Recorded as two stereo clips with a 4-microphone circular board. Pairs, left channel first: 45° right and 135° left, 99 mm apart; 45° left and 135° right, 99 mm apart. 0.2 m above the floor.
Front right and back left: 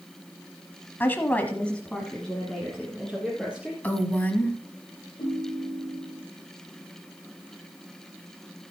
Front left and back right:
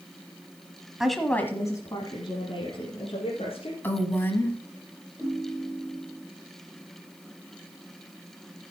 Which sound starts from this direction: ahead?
A woman speaking, at 3.8 s.